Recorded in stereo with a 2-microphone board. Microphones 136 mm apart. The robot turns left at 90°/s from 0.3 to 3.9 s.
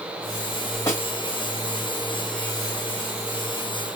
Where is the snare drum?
20° left (ahead or behind), 1.9 m; by 1.0 s 30° left (ahead or behind), 1.9 m.